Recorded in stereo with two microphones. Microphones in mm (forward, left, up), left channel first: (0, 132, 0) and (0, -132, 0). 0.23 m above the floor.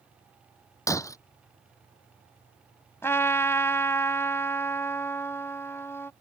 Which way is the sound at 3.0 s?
10° left (ahead or behind).